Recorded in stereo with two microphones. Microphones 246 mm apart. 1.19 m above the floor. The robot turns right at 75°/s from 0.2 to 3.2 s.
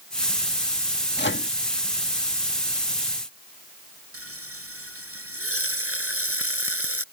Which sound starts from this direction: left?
A microwave, at 1.2 s.